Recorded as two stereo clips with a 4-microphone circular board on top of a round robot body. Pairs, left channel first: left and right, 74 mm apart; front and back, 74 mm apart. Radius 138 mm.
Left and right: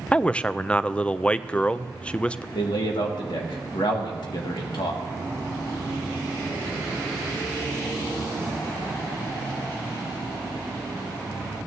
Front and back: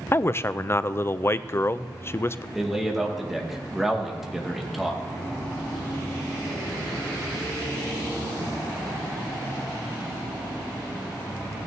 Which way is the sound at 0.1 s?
25° left.